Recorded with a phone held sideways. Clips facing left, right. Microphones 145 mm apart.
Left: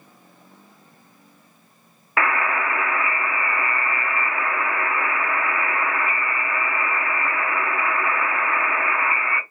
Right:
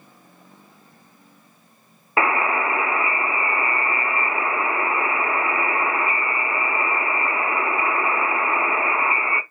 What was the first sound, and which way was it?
A buzzer, 25° right (ahead or behind).